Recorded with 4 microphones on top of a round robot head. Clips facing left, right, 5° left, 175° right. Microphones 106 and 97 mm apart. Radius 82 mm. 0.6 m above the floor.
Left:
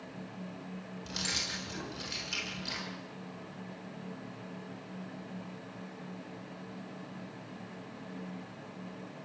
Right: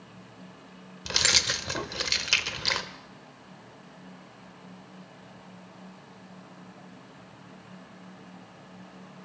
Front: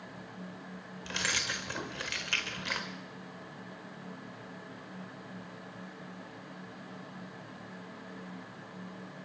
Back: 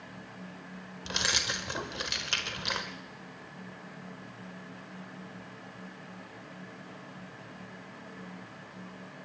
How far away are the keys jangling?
About 1.4 m.